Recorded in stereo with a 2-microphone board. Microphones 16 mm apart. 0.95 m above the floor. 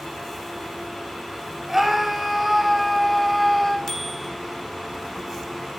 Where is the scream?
20° right (ahead or behind), 4 m; by 3.8 s 5° right (ahead or behind), 4 m.